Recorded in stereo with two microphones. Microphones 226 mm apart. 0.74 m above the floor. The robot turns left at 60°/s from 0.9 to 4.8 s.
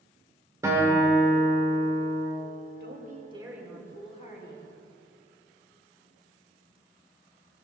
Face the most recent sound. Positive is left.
turn(degrees=115)